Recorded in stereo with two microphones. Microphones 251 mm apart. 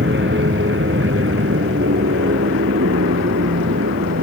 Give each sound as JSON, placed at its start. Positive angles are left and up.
{"t": 0.0, "sound": "an aircraft", "side_deg": -50}